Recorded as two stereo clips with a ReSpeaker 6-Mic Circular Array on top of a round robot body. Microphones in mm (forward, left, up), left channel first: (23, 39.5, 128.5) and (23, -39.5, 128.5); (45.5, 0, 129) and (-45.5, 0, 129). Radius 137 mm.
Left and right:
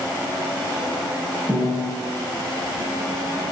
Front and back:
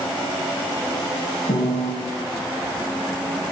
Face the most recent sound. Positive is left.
turn(degrees=0)